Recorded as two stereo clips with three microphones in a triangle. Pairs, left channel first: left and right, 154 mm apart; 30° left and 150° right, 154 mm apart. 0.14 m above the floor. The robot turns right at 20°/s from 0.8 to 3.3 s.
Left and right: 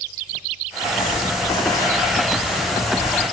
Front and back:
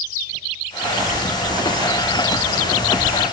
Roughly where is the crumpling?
Behind left.